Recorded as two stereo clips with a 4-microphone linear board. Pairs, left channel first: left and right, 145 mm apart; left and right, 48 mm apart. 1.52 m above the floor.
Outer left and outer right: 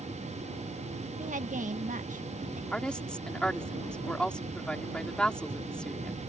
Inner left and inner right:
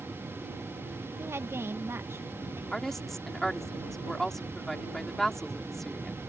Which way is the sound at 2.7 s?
5° left (ahead or behind).